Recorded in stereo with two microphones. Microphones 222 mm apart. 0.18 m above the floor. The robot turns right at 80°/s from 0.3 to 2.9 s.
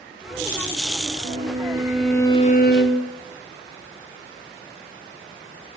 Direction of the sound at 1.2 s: 60° right.